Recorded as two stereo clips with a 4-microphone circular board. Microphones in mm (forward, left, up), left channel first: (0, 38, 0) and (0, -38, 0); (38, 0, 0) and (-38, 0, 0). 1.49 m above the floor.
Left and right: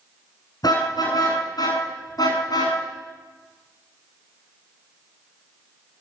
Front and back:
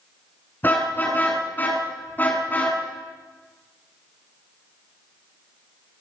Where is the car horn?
65° left, 9 m.